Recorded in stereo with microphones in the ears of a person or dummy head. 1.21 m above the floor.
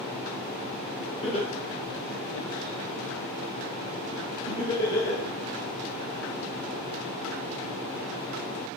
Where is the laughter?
30° left (ahead or behind), 1.0 m; by 5.2 s 15° left (ahead or behind), 1.9 m.